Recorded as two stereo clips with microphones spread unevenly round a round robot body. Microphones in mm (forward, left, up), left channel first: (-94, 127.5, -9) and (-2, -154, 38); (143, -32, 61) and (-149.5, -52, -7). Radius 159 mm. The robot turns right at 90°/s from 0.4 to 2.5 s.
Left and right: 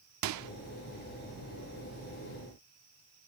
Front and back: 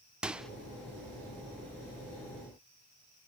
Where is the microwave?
100° right, 0.9 m; by 0.5 s 90° right, 0.9 m.